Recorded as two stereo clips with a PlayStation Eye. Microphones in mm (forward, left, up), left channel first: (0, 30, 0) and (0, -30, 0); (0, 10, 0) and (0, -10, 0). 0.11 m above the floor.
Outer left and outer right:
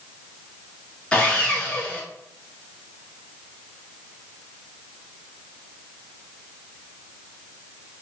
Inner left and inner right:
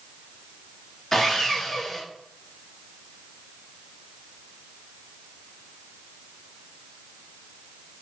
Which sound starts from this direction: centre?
Sawing, at 1.1 s.